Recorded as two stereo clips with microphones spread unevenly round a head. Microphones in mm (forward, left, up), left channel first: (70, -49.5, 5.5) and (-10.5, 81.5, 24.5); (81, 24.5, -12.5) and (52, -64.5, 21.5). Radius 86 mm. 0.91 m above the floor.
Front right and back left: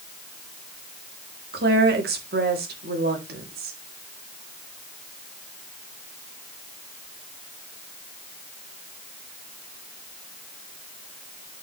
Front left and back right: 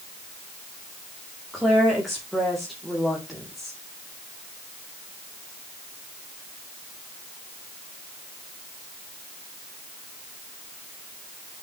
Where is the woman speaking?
155° left, 2 m.